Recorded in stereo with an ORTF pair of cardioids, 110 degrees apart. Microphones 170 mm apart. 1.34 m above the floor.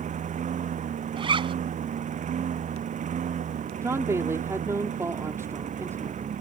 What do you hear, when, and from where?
0.0 s a lawn mower: 45° right
1.2 s a zipper: 30° right
3.8 s a woman speaking: 15° right